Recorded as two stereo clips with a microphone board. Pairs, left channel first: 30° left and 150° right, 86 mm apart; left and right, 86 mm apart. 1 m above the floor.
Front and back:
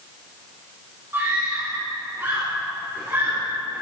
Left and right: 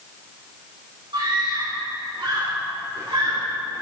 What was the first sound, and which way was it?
A scream, 90° right.